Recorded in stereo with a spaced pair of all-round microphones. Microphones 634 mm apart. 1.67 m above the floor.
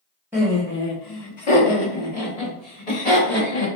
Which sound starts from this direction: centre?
Laughter, at 0.3 s.